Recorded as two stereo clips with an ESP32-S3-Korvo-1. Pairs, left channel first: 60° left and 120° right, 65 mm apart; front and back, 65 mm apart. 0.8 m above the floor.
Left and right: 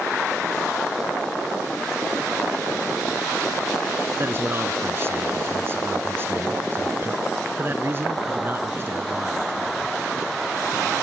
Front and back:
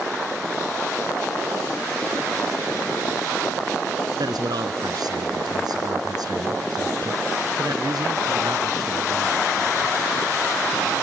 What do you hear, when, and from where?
4.2 s a man speaking: 175° right